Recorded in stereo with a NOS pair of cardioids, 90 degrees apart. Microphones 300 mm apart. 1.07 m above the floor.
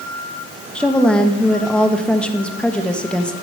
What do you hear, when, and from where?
0.8 s a woman speaking: 5° left, 1.0 m